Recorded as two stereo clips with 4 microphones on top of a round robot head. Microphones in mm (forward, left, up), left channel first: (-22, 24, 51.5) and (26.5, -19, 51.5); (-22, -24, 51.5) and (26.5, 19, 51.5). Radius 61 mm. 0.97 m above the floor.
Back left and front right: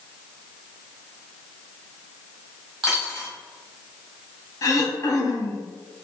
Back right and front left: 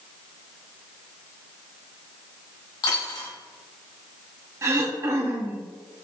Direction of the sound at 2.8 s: 130° right.